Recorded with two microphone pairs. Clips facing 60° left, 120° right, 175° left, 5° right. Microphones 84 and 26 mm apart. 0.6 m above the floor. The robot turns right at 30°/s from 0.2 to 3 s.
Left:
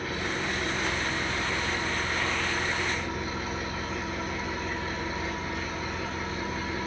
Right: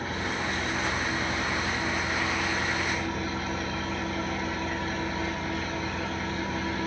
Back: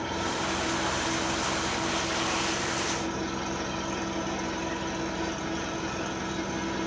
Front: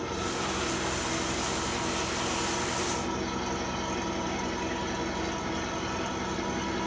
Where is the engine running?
175° left, 3 m; by 6.9 s 100° right, 3 m.